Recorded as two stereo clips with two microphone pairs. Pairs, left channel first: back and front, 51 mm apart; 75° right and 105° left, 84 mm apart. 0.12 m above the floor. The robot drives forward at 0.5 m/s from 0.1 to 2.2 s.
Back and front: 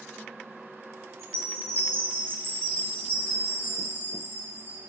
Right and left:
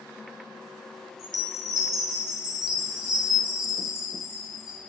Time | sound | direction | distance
1.2 | a chime | 15° left | 1.6 m